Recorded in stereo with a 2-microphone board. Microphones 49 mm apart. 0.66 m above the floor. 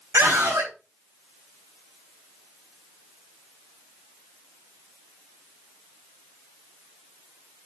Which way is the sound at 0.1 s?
80° right.